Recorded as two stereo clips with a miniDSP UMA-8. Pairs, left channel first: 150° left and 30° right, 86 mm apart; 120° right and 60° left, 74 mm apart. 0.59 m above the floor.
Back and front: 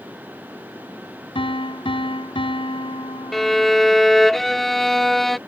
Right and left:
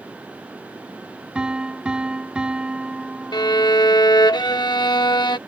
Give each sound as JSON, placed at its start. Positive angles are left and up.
{"t": 1.4, "sound": "a piano", "azimuth_deg": 135}
{"t": 3.3, "sound": "a violin", "azimuth_deg": -125}